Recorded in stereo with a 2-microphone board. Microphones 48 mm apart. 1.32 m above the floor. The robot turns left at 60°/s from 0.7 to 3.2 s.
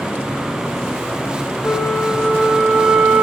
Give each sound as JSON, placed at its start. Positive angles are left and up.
{"t": 1.6, "sound": "a flute", "azimuth_deg": 50, "distance_m": 1.7}